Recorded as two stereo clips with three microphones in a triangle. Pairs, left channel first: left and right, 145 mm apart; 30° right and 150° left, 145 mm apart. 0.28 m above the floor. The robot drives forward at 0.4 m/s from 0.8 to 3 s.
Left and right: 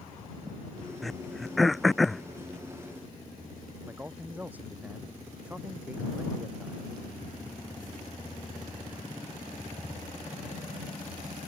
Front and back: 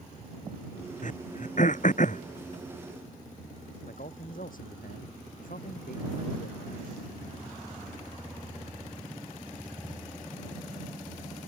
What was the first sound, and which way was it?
Throat clearing, straight ahead.